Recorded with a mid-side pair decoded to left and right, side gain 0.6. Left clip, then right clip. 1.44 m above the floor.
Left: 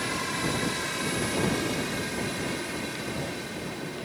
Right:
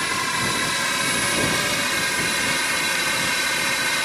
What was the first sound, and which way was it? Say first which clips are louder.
A drone: right 7 dB; 40° right.